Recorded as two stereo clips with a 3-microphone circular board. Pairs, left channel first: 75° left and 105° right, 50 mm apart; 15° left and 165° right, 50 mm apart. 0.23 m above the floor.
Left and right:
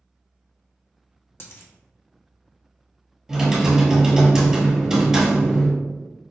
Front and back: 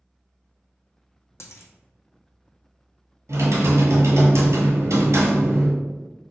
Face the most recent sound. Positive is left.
turn(degrees=175)